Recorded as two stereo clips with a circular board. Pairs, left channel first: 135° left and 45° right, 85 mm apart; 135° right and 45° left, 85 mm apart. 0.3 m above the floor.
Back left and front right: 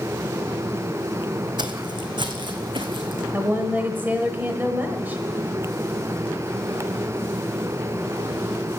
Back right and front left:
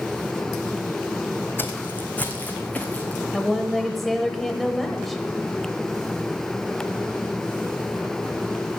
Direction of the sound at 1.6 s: 70° right.